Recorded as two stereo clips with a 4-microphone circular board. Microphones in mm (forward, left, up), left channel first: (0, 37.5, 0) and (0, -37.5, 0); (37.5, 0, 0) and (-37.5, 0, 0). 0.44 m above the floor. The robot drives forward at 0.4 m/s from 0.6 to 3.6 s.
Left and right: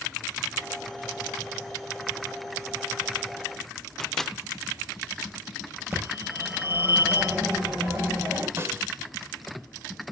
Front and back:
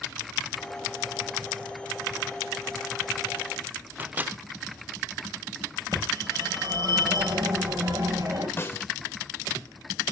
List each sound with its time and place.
4.0 s a microwave: 170° left, 0.6 m
5.9 s a phone ringing: 150° right, 6.5 m
8.6 s a snare drum: 45° right, 1.6 m